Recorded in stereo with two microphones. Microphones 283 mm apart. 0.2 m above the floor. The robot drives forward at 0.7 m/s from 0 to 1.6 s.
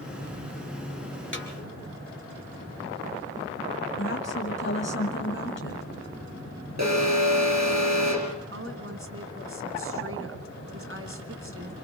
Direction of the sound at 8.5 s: 50° right (ahead or behind).